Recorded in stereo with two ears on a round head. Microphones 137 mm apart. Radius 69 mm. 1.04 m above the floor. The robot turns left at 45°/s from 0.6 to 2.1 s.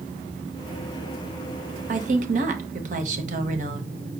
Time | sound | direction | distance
1.9 | a woman speaking | 50° right (ahead or behind) | 1.0 m